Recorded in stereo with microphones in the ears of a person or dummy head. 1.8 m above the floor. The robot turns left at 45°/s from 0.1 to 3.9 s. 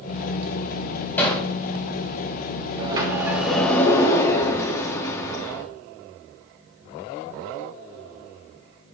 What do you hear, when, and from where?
1.2 s hammering: 10° left (ahead or behind), 4 m; by 1.4 s centre (ahead or behind), 4 m
2.8 s a sliding door: 150° right, 1.9 m; by 5.7 s 160° left, 1.9 m